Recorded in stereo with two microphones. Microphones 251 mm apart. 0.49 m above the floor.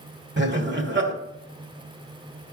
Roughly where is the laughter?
Right.